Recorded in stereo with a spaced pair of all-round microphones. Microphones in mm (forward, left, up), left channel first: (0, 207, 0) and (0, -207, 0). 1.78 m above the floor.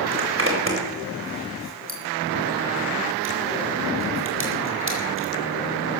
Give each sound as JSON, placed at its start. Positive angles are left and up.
{"t": 0.1, "sound": "a zipper", "side_deg": -30, "distance_m": 4.0}